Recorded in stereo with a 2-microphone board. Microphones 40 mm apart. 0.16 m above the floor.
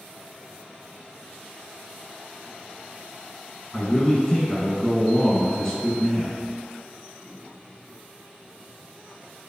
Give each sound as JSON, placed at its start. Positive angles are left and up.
{"t": 3.7, "sound": "a man speaking", "side_deg": 15, "distance_m": 1.5}